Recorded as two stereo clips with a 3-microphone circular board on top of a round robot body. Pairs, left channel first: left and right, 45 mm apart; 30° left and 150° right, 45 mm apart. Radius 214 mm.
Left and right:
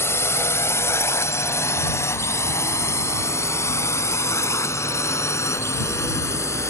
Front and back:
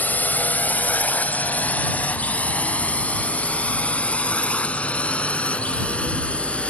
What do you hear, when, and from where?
0.0 s a drone: 80° left; by 6.7 s 95° left